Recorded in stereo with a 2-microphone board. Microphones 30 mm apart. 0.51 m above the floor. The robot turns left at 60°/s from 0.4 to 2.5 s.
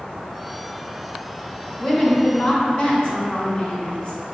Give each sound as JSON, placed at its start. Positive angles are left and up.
{"t": 1.8, "sound": "a woman speaking", "azimuth_deg": 155, "distance_m": 0.9}